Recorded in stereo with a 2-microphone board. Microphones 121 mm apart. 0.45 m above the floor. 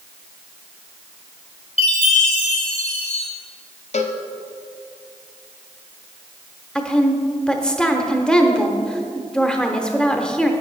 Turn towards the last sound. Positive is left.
turn(degrees=5)  # may be behind; listen again after turning